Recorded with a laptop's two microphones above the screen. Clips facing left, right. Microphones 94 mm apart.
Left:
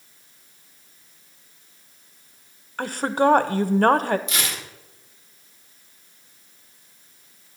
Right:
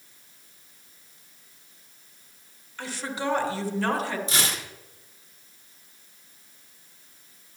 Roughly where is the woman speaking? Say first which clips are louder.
Left 11 dB; left.